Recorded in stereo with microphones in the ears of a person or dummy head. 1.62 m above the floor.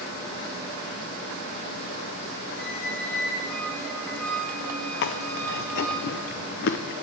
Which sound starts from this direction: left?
Chewing, at 5.0 s.